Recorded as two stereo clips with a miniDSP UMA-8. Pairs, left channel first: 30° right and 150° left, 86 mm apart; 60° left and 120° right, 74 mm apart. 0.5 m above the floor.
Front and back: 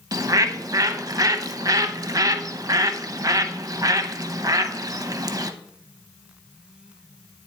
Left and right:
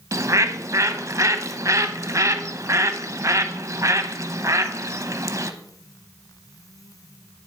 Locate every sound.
0.1 s a bird: 165° right, 0.6 m